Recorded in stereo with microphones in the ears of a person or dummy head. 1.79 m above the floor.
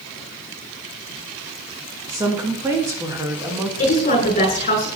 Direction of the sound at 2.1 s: 20° right (ahead or behind).